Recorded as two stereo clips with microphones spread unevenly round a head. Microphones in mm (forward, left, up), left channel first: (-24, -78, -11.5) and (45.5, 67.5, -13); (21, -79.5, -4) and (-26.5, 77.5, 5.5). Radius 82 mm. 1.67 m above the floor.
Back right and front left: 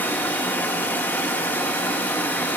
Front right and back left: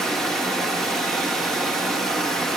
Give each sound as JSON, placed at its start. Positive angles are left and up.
{"t": 0.0, "sound": "running water", "azimuth_deg": -165, "distance_m": 1.0}